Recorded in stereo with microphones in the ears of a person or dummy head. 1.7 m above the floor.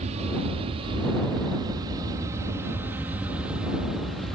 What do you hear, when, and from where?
0.0 s an aircraft: 40° right (ahead or behind); by 4.4 s centre (ahead or behind)